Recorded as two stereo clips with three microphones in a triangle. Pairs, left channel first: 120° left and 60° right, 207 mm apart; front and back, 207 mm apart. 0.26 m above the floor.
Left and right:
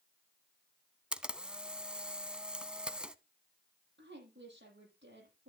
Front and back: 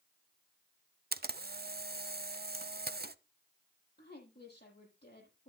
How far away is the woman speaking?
About 8.5 m.